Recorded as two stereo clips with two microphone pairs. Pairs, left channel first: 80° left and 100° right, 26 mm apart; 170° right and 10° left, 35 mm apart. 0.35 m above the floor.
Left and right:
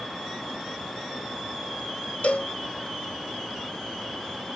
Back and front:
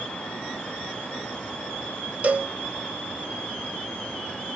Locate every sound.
2.2 s a cowbell: 60° left, 0.9 m